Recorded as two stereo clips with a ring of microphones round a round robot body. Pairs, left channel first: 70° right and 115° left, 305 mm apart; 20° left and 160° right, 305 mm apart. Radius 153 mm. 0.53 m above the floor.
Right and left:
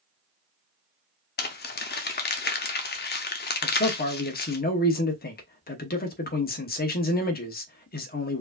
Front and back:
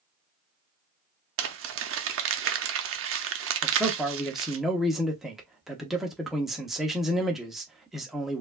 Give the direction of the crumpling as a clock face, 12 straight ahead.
4 o'clock.